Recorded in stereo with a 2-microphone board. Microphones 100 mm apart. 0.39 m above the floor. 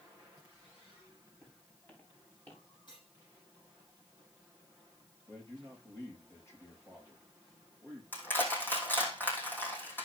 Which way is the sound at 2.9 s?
50° left (ahead or behind).